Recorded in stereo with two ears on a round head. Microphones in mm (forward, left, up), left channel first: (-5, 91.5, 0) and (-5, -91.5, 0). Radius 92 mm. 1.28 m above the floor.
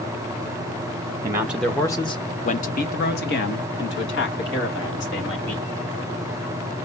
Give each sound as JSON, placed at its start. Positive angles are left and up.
{"t": 1.2, "sound": "a man speaking", "side_deg": -20, "distance_m": 0.7}